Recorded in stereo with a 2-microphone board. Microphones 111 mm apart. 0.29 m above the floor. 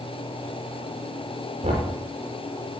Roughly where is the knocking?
Right.